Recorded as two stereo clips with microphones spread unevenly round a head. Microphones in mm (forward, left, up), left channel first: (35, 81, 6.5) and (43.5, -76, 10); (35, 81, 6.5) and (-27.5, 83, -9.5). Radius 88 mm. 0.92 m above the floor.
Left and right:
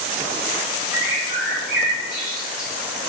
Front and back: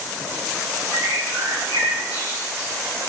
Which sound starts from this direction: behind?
A bird, at 0.9 s.